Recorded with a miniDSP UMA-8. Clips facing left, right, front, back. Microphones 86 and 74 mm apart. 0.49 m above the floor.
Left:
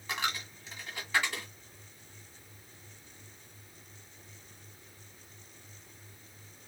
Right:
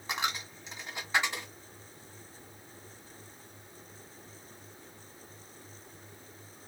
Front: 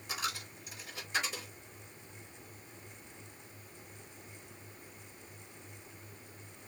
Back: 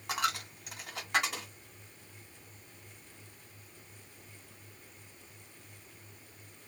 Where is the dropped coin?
160° right, 1.4 m.